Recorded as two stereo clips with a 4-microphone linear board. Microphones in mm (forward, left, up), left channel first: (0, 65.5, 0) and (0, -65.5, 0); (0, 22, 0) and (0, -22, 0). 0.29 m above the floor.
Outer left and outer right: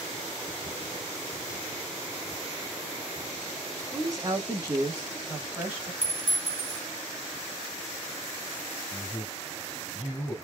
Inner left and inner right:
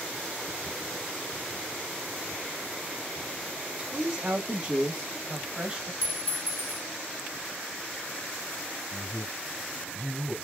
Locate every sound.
3.8 s a woman speaking: 25° right (ahead or behind), 1.0 m; by 5.9 s 20° right (ahead or behind), 1.5 m
6.0 s a clink: 70° right (ahead or behind), 1.2 m
8.9 s a man speaking: 45° left (ahead or behind), 2 m